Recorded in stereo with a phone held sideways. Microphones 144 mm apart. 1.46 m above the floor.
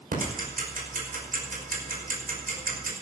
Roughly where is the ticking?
Right.